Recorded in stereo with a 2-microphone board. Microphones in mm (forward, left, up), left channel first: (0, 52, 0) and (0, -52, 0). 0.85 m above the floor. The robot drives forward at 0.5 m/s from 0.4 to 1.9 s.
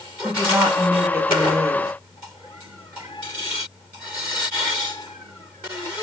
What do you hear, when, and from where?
0.2 s a woman speaking: 20° right (ahead or behind), 1.5 m; by 1.9 s 30° right (ahead or behind), 1.0 m